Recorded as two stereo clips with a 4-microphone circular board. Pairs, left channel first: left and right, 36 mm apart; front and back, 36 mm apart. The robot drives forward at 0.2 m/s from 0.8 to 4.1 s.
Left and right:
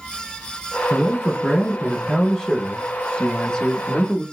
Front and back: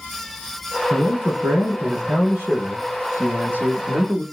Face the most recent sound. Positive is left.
turn(degrees=160)